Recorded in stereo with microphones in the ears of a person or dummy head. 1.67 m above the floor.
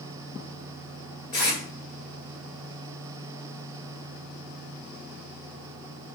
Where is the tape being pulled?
25° left (ahead or behind), 1.7 m.